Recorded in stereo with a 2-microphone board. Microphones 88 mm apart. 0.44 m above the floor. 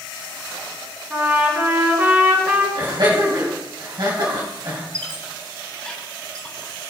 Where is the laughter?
60° right (ahead or behind), 2.5 m.